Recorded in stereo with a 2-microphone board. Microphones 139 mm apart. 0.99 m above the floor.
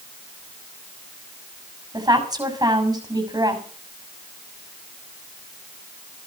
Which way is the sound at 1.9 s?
30° right (ahead or behind).